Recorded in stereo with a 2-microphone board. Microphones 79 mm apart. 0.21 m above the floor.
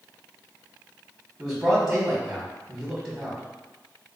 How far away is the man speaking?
About 1.2 m.